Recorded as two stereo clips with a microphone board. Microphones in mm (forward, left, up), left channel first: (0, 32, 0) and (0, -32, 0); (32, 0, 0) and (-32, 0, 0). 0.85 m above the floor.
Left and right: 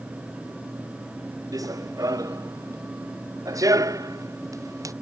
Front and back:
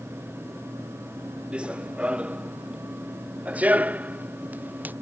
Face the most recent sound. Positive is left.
turn(degrees=-115)